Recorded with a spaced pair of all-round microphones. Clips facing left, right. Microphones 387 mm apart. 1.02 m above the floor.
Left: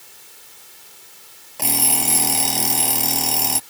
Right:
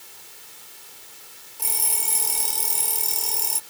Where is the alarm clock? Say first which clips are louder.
Left 15 dB; 85° left.